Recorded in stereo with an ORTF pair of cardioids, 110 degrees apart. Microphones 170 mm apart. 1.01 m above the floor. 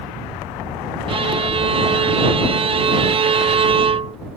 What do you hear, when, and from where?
1.1 s a violin: 30° right